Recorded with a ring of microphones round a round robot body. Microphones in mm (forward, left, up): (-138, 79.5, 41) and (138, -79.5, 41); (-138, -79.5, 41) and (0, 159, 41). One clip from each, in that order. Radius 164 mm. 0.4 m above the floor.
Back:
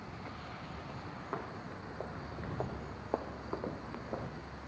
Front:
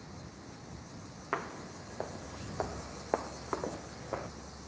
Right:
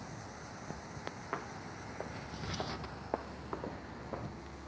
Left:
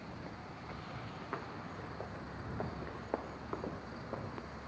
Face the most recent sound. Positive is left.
turn(degrees=-35)